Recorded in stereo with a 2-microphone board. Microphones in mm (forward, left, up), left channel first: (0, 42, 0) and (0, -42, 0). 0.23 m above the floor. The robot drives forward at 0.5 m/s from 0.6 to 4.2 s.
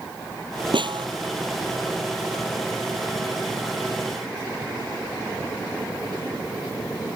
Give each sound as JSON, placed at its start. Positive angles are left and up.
{"t": 0.7, "sound": "a snare drum", "side_deg": -75}